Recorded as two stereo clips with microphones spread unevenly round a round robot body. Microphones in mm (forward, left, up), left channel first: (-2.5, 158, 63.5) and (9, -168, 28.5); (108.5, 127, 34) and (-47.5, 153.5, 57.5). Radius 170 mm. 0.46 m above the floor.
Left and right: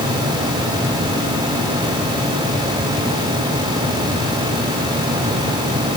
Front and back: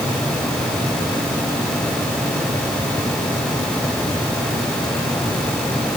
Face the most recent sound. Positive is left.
No sound to turn to.